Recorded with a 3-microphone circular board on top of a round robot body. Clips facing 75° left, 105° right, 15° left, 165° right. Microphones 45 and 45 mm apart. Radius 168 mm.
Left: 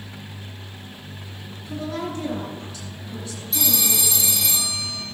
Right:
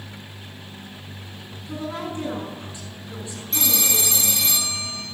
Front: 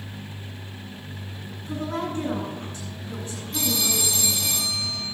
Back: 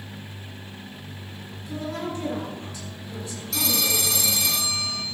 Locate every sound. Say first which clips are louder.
1.7 s a woman speaking: left 1 dB, front 2 dB; 35° right, 9 m
3.5 s a phone ringing: right 1 dB, back 1 dB; 155° right, 2.5 m